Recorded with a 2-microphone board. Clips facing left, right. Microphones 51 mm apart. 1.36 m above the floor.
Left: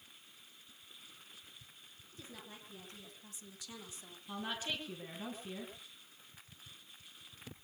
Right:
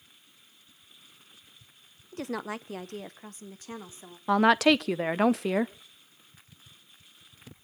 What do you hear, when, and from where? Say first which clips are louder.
2.1 s a woman speaking: right 19 dB; 65° right (ahead or behind), 1.0 m; by 4.2 s 30° right (ahead or behind), 1.9 m
4.3 s a woman speaking: right 20 dB; 80° right, 0.7 m